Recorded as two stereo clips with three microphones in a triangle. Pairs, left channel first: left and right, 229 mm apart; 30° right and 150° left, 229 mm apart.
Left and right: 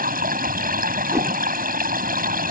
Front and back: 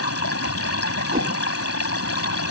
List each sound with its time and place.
0.0 s running water: 35° right
1.1 s a whoosh: 165° right